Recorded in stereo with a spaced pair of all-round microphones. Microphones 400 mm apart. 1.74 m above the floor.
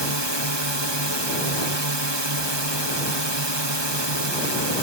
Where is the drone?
85° right.